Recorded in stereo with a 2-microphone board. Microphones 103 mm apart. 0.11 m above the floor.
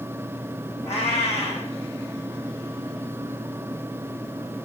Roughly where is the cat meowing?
Left.